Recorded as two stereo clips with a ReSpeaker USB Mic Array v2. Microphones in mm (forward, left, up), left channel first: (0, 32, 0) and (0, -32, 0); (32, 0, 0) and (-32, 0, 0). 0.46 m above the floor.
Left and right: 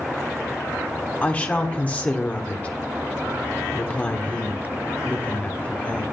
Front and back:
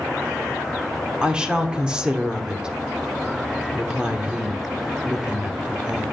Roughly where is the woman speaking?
Behind left.